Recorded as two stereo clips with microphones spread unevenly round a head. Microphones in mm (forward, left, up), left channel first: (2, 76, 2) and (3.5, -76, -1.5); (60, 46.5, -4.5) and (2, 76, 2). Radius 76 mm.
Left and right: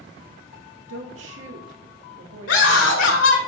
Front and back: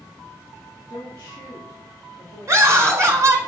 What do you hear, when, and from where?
0.9 s a woman speaking: 100° right, 2.5 m
2.5 s a scream: 105° left, 4 m